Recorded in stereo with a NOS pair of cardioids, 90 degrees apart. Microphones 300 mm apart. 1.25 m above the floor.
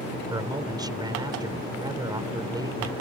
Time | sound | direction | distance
0.3 | a man speaking | 15° right | ?